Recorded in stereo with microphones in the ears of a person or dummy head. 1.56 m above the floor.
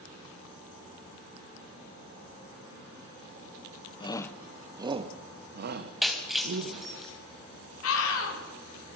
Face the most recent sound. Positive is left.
turn(degrees=85)